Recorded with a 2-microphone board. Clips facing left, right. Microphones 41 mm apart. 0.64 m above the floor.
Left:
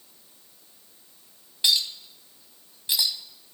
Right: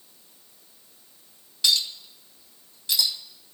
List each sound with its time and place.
1.6 s a clink: 20° left (ahead or behind), 2.5 m